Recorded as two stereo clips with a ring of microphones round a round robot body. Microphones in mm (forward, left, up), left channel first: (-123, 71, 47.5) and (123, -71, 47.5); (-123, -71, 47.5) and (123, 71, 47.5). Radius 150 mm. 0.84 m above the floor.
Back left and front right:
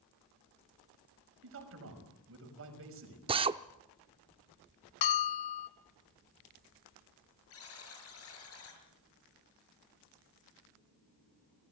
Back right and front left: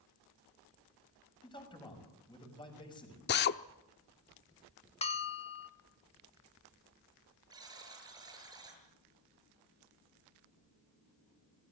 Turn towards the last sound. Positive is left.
turn(degrees=105)